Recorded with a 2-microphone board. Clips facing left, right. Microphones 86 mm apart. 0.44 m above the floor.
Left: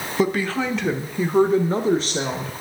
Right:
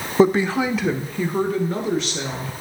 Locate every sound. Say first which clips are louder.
0.2 s a woman speaking: right 5 dB; 30° right (ahead or behind), 0.8 m; by 2.5 s 45° left (ahead or behind), 1.3 m